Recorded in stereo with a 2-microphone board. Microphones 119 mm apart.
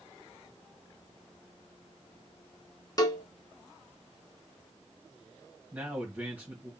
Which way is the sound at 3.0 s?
30° left (ahead or behind).